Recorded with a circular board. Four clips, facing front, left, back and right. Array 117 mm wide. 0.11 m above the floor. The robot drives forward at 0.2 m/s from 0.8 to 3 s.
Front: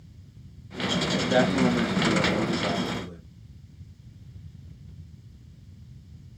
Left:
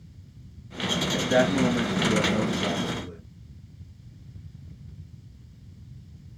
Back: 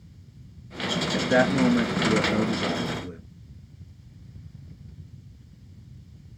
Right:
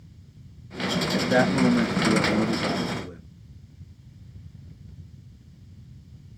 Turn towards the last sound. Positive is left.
turn(degrees=-170)